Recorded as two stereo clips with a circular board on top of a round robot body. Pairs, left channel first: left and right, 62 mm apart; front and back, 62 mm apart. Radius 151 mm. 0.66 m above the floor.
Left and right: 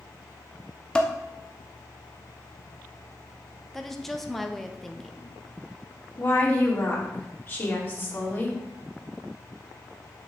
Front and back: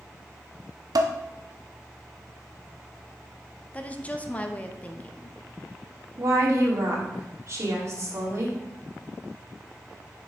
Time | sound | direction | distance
0.9 | dishes clattering | 165° left | 0.7 m
3.7 | a woman speaking | 10° left | 0.9 m
6.2 | a woman speaking | 145° left | 2.5 m